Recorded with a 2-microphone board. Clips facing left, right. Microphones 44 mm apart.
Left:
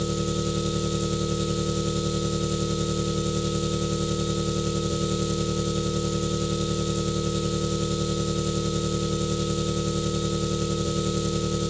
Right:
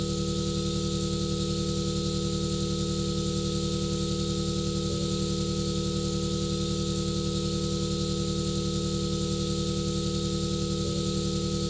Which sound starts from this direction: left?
An engine running, at 0.0 s.